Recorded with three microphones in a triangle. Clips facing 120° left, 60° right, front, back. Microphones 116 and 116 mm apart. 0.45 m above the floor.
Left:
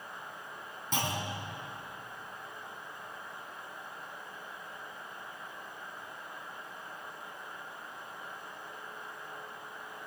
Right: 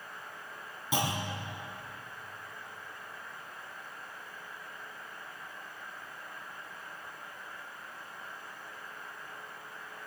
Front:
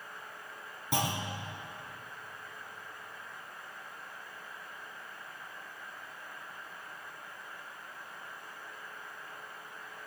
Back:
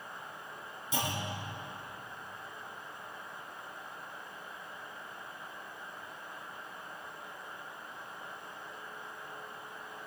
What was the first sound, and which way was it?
A clunk, 20° left.